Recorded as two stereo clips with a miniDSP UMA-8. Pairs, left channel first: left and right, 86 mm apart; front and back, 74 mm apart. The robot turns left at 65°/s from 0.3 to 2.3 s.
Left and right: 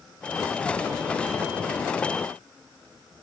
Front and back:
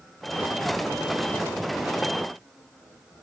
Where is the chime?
I don't hear a chime.